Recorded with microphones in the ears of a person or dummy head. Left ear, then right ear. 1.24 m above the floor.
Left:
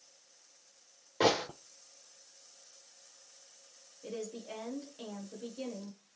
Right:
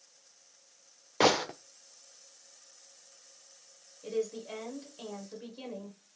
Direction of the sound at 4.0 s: 10° right (ahead or behind).